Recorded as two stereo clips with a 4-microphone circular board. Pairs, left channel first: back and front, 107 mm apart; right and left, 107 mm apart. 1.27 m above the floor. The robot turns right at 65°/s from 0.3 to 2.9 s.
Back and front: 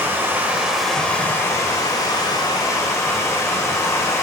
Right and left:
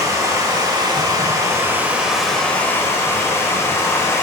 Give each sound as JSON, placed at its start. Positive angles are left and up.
{"t": 0.0, "sound": "running water", "azimuth_deg": 55, "distance_m": 1.2}